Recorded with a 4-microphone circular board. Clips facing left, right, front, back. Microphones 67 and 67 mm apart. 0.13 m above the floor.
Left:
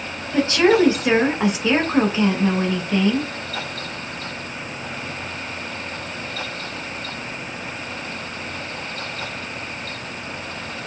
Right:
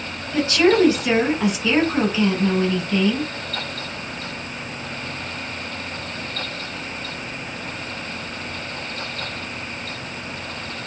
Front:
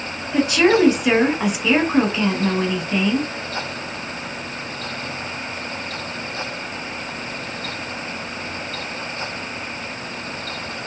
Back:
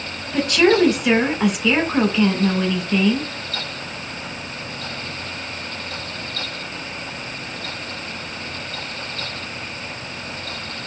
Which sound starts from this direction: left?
A woman speaking, at 0.3 s.